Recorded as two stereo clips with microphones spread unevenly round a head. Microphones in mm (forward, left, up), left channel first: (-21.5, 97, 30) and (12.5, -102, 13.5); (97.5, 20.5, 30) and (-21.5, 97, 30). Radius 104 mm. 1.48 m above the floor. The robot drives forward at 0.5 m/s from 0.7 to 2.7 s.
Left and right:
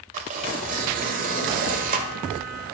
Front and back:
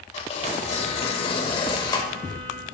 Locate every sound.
0.1 s tearing paper: 40° right, 1.5 m; by 2.1 s 80° right, 1.3 m